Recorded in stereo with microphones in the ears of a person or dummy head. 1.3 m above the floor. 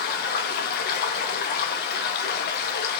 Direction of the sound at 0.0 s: 55° left (ahead or behind).